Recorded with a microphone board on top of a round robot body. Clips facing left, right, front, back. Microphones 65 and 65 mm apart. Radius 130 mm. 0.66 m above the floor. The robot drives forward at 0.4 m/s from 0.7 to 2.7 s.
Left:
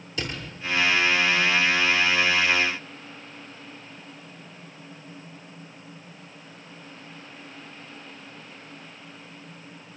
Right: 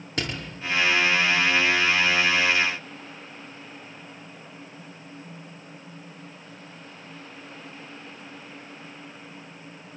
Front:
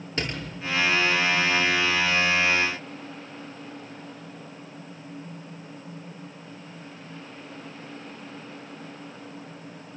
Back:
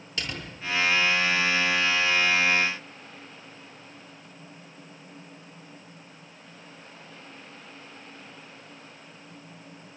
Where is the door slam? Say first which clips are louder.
Right 2 dB, front 4 dB; 55° right, 10 m.